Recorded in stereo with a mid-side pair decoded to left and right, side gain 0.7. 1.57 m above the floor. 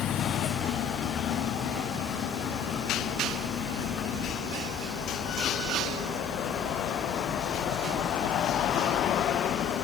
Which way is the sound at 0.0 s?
45° left.